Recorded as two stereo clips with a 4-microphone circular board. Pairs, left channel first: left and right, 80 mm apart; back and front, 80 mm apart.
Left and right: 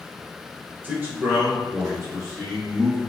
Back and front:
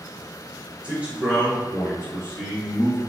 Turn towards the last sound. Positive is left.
turn(degrees=-70)